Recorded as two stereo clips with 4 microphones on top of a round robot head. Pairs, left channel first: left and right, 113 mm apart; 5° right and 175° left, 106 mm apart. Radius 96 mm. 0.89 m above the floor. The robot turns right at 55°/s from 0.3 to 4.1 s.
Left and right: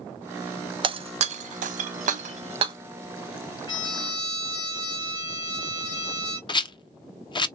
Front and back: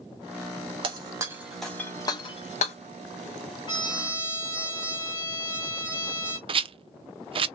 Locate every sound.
0.8 s breaking glass: 135° right, 0.5 m; by 2.8 s 30° right, 0.5 m
3.7 s a trumpet: 30° left, 2 m; by 6.4 s 55° left, 2 m
6.5 s a rattle: 140° left, 0.5 m